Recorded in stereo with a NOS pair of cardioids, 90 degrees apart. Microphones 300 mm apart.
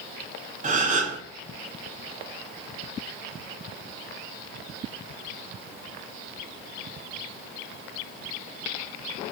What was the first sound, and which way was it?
A gasp, 25° right.